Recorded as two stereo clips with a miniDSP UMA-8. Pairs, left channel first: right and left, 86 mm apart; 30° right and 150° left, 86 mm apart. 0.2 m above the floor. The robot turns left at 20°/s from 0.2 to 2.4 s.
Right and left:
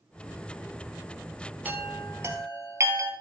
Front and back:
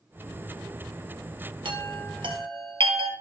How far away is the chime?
About 1.6 m.